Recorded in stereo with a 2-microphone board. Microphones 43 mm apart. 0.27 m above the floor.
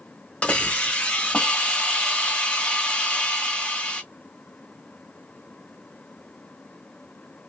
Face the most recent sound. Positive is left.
turn(degrees=30)  # may be behind; listen again after turning